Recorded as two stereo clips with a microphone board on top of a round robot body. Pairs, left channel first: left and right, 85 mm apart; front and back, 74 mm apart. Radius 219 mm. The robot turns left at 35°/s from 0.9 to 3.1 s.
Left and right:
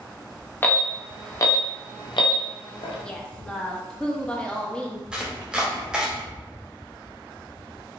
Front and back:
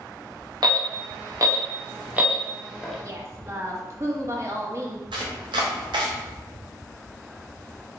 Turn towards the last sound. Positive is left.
turn(degrees=-170)